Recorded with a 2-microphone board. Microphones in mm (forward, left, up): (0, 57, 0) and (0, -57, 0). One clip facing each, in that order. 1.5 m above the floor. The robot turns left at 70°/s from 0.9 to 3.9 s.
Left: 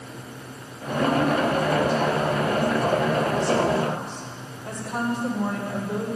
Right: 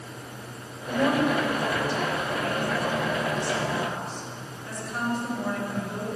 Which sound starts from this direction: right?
A woman speaking, at 0.9 s.